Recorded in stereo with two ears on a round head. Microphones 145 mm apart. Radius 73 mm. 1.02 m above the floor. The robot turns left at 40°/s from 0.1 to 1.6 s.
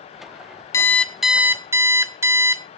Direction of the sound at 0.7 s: 20° left.